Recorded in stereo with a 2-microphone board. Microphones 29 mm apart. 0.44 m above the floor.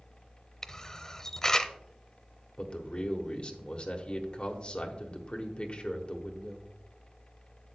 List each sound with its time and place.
0.6 s a camera shutter: 20° left (ahead or behind), 0.6 m
2.6 s a man speaking: 35° left (ahead or behind), 1.2 m